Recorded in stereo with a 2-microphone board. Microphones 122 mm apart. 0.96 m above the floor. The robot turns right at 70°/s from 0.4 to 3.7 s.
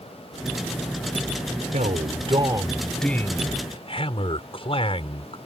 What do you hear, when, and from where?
1.7 s a man speaking: 85° right; by 5.4 s 50° left